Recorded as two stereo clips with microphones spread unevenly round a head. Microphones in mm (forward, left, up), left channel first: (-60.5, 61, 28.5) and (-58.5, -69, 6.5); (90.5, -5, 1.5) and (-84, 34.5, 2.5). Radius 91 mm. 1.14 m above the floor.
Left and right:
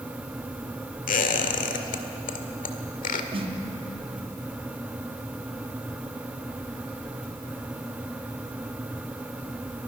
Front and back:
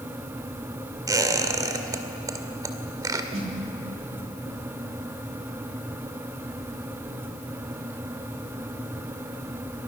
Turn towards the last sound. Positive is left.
turn(degrees=-135)